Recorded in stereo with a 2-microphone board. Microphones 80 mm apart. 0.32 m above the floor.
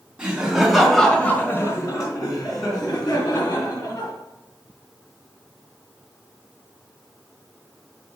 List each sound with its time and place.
0.2 s laughter: 15° right (ahead or behind), 2.5 m; by 4.1 s 50° left (ahead or behind), 4.5 m